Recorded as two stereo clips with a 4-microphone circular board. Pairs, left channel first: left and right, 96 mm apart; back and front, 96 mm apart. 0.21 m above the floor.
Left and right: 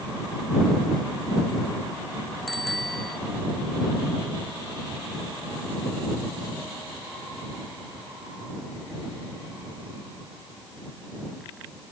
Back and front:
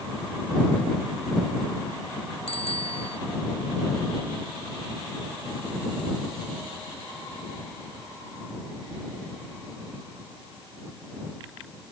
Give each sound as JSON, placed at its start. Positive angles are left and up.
{"t": 2.5, "sound": "a bicycle bell", "azimuth_deg": 180}